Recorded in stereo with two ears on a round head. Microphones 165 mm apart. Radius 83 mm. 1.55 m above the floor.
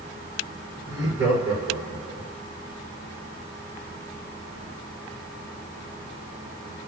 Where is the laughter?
20° right (ahead or behind), 5.5 m; by 2.3 s 15° right (ahead or behind), 4.5 m.